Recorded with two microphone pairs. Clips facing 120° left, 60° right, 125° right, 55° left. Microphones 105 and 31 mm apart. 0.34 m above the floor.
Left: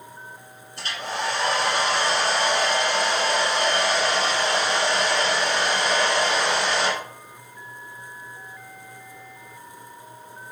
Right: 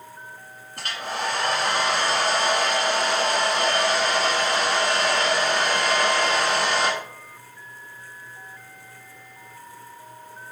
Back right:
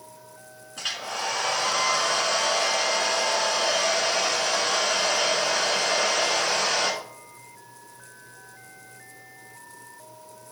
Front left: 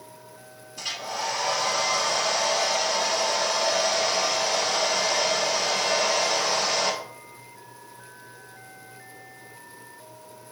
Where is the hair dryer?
95° right, 1.3 m.